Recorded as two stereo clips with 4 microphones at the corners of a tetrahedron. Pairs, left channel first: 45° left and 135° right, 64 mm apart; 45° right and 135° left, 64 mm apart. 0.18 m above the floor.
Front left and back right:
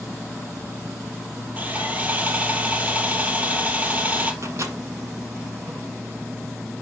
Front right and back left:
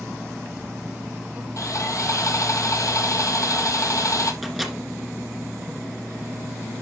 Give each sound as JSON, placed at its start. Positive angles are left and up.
{"t": 1.6, "sound": "sawing", "azimuth_deg": -70, "distance_m": 1.3}
{"t": 4.4, "sound": "a microwave", "azimuth_deg": -135, "distance_m": 1.8}